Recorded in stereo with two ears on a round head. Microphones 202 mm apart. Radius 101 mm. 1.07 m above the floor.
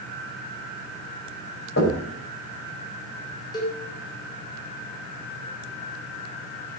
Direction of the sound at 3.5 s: 20° left (ahead or behind).